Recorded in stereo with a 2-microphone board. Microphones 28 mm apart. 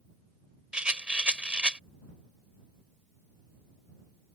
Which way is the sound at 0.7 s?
50° right (ahead or behind).